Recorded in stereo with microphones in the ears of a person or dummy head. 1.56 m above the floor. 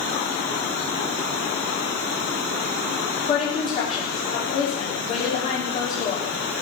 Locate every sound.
3.2 s a woman speaking: 40° left (ahead or behind), 3.5 m